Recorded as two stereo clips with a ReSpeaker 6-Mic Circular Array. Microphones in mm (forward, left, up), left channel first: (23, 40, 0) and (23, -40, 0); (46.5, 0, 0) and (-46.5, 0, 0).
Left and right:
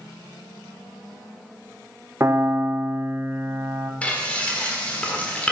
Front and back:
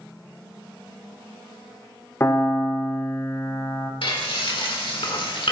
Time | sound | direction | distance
2.2 | a piano | 50° right | 0.6 m
4.0 | frying | 20° left | 1.4 m